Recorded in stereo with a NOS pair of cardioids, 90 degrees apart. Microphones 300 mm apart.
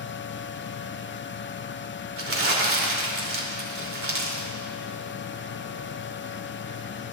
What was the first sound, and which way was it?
A fan, 40° left.